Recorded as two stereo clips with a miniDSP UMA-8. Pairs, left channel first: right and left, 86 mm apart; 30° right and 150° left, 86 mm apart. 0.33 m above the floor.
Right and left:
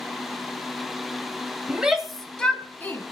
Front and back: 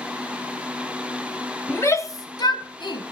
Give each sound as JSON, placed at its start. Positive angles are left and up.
{"t": 1.7, "sound": "a shout", "azimuth_deg": 20, "distance_m": 1.7}